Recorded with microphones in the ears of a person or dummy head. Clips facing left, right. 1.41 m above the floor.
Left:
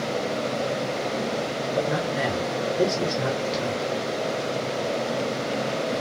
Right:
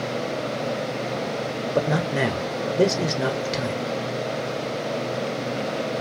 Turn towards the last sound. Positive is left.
turn(degrees=-55)  # may be behind; listen again after turning